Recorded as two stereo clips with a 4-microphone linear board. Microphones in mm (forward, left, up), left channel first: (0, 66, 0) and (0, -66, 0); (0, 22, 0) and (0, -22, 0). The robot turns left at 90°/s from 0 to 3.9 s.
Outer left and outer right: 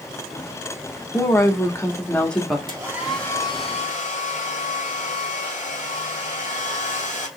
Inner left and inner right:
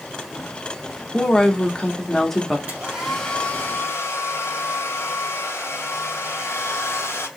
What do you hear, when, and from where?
1.1 s a woman speaking: 15° left (ahead or behind), 0.9 m; by 2.6 s centre (ahead or behind), 0.9 m
2.7 s a hair dryer: 145° right, 2 m; by 7.3 s 105° left, 2 m